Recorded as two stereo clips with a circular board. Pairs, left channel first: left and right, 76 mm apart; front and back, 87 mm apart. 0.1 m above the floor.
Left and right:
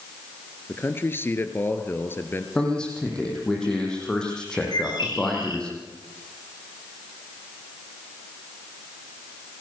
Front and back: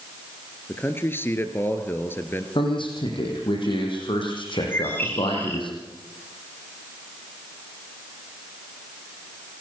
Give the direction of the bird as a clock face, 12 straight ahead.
10 o'clock.